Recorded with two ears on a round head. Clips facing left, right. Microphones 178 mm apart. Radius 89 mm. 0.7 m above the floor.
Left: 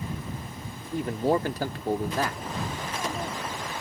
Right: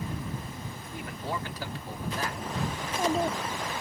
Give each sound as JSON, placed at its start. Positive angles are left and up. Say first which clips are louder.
{"t": 0.8, "sound": "a man speaking", "louder": "left 14 dB", "side_deg": 25}
{"t": 2.8, "sound": "a child speaking", "louder": "right 5 dB", "side_deg": -25}